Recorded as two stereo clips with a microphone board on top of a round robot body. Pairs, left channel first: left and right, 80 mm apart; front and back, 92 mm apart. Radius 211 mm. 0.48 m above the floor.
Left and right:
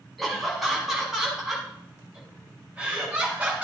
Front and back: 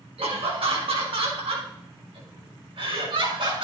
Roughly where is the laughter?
Behind.